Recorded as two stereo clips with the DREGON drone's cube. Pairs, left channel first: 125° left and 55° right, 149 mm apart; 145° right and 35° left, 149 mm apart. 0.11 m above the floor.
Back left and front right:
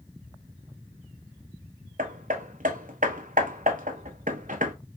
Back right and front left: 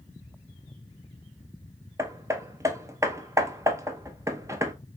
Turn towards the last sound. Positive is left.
turn(degrees=-35)